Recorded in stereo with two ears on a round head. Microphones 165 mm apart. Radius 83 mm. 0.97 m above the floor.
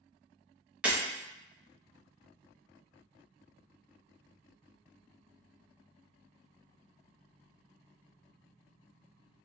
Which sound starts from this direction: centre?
Breaking glass, at 0.8 s.